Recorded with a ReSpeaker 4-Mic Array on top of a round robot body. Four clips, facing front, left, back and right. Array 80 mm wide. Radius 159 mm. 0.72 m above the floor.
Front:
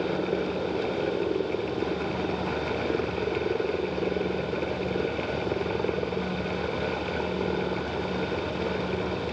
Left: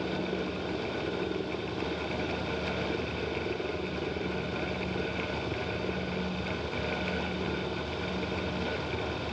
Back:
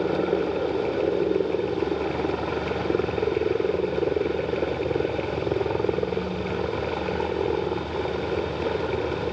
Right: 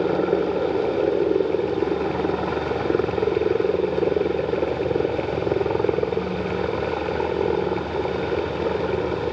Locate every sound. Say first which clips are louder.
0.0 s a helicopter: right 12 dB, back 4 dB; 105° right